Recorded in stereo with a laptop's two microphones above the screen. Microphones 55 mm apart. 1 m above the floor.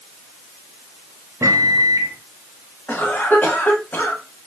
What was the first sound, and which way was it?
A microwave, 70° right (ahead or behind).